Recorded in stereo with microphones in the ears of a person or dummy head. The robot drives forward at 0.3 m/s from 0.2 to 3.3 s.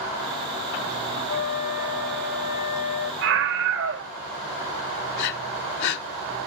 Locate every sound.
1.3 s a flute: 85° left, 7.5 m; by 3.1 s 80° left, 7.5 m
3.2 s a scream: 70° right (ahead or behind), 1.4 m
5.2 s breathing: 55° left (ahead or behind), 0.6 m